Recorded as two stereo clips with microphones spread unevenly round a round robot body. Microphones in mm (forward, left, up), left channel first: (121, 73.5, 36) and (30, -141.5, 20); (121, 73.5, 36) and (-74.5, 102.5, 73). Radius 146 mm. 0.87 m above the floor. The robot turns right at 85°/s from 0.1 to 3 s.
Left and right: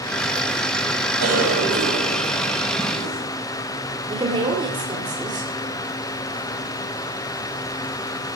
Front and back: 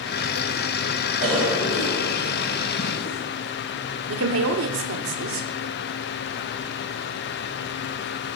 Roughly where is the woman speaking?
Behind.